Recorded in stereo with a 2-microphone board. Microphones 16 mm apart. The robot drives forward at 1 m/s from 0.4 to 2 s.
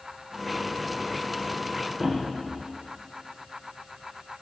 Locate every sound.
2.0 s a thud: 10° left (ahead or behind), 6 m